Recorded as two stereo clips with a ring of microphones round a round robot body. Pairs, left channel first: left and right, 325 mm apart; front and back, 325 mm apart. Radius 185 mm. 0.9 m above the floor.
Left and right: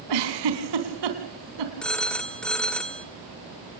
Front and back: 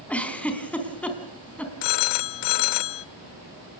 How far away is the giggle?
About 3.5 m.